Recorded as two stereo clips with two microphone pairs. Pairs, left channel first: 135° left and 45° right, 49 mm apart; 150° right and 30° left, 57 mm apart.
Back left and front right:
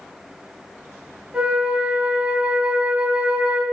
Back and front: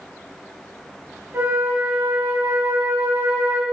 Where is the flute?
15° left, 0.8 m.